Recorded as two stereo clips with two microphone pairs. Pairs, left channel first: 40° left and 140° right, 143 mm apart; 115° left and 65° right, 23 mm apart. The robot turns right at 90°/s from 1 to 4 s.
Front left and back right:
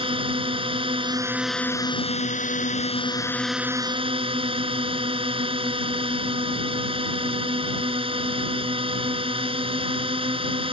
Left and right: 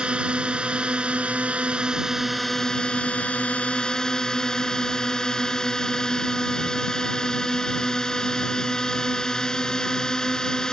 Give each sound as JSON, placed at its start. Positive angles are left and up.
{"t": 0.0, "sound": "a drone", "azimuth_deg": -95}